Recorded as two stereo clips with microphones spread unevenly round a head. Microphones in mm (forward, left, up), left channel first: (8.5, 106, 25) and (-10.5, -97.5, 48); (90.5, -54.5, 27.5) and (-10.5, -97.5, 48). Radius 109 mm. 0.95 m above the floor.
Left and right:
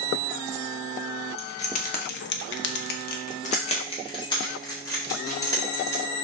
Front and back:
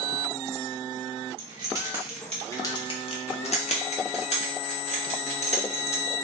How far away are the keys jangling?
About 0.8 m.